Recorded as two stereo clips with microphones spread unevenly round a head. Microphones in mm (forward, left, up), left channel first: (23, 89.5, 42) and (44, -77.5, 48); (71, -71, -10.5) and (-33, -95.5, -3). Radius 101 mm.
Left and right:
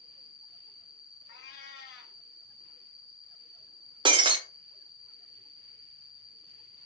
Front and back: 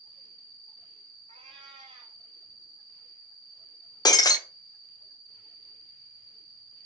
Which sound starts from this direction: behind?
An insect, at 0.0 s.